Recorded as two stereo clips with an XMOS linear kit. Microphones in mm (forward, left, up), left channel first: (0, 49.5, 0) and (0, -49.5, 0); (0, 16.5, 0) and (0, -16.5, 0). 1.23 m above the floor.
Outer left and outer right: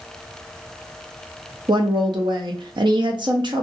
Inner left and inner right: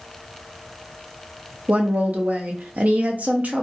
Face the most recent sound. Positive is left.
turn(degrees=-55)  # may be behind; listen again after turning